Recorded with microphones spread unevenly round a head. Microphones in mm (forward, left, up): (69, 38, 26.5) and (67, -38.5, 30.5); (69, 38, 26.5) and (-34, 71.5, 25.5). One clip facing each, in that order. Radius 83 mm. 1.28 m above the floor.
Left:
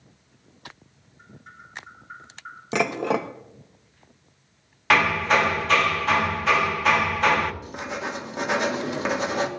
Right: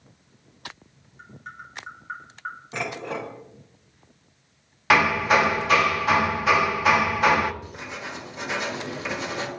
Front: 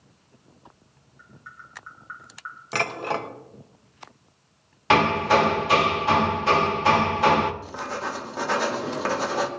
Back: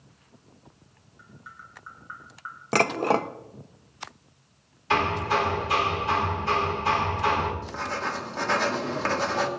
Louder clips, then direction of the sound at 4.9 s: Right 1 dB, front 6 dB; 10° right.